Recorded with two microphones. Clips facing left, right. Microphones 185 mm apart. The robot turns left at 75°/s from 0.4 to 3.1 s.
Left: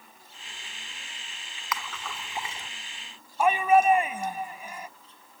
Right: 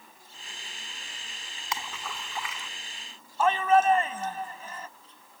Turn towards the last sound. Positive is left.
turn(degrees=15)  # may be behind; listen again after turning